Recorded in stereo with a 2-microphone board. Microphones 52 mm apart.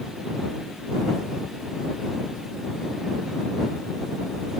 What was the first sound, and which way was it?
Only background noise.